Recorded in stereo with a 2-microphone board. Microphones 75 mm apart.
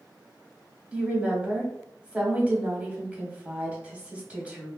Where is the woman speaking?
20° right (ahead or behind), 1.2 m.